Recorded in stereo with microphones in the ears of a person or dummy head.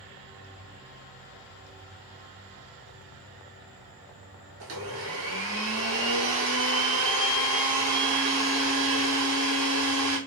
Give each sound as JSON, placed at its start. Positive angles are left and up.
{"t": 4.6, "sound": "a blender", "side_deg": -70, "distance_m": 1.0}